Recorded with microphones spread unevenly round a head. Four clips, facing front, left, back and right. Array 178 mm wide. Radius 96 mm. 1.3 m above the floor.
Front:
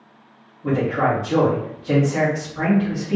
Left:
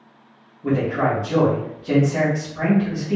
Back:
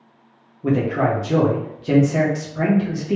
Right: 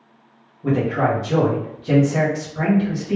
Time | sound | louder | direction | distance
0.6 | a man speaking | right 1 dB, back 1 dB | 170° right | 1.3 m